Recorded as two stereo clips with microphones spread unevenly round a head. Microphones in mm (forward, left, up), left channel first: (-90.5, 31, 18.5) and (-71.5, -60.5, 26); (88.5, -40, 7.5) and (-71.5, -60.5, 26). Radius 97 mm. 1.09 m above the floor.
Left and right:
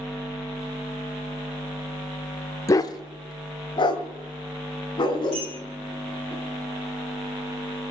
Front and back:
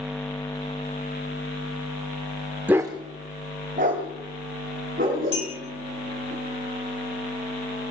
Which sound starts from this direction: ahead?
A clink, at 5.3 s.